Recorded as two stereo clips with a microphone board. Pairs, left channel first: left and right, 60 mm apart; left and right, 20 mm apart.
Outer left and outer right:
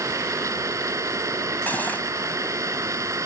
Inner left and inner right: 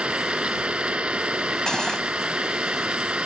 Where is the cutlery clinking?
30° left (ahead or behind).